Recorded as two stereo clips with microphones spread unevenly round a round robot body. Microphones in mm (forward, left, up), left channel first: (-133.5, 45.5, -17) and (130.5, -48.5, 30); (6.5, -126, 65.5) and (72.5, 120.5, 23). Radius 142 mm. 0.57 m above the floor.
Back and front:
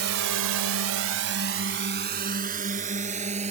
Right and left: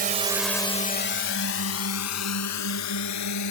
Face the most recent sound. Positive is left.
turn(degrees=-90)